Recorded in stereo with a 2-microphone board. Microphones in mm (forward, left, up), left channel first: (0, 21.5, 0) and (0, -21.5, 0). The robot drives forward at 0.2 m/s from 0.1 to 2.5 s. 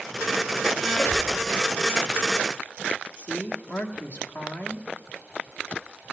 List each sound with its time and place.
0.9 s a squeak: 60° left (ahead or behind), 1.0 m
3.2 s a woman speaking: 50° left (ahead or behind), 1.4 m